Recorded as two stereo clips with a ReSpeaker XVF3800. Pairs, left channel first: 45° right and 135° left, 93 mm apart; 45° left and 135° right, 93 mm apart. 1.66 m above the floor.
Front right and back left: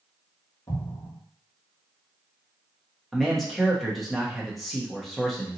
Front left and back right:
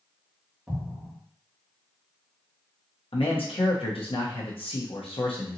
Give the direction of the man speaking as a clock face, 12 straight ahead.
11 o'clock.